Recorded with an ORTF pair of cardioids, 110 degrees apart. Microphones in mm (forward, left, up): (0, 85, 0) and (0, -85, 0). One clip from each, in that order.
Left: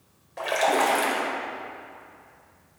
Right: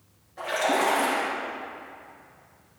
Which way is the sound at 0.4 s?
65° left.